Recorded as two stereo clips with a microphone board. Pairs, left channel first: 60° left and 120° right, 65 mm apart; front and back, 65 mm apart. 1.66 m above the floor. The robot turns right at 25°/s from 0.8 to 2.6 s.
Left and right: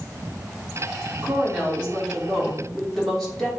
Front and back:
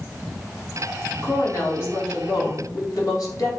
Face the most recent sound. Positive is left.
turn(degrees=-25)